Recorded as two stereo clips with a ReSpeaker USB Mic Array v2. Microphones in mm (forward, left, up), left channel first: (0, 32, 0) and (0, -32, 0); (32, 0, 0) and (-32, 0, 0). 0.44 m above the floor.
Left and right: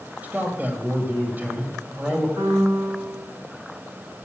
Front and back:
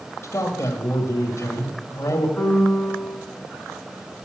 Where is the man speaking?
30° right, 2 m.